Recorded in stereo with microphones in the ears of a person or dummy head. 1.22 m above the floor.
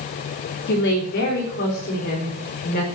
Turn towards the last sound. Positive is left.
turn(degrees=45)  # may be behind; listen again after turning